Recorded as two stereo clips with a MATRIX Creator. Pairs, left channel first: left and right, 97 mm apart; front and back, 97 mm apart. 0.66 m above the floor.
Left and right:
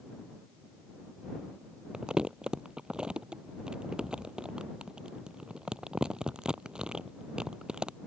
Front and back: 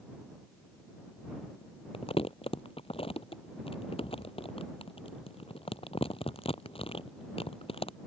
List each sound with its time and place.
1.9 s crumpling: 10° right